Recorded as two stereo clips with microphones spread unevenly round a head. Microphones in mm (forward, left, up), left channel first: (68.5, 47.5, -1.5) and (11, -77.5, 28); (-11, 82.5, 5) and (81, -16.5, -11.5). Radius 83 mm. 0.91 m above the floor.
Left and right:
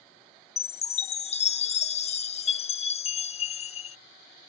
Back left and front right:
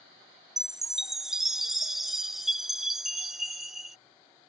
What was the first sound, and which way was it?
A chime, 40° left.